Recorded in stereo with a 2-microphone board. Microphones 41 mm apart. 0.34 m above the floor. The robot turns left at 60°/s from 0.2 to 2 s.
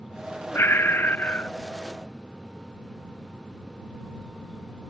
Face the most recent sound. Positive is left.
turn(degrees=5)